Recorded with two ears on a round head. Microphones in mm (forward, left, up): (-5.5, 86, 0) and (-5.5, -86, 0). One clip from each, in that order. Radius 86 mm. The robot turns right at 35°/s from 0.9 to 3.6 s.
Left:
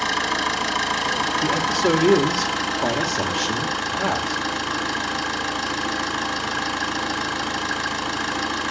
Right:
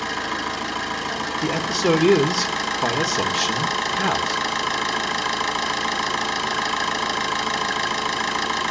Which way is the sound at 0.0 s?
150° left.